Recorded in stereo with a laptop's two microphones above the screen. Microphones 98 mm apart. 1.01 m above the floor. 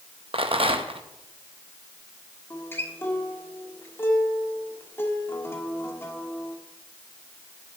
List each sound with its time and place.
0.3 s a rattle: 60° right (ahead or behind), 1.0 m
2.5 s a guitar: 20° left (ahead or behind), 1.4 m